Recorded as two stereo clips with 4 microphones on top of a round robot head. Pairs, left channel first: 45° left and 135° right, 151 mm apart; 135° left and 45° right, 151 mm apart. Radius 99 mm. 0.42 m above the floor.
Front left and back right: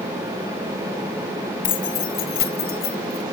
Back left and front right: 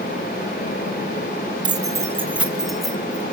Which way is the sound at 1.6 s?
15° left.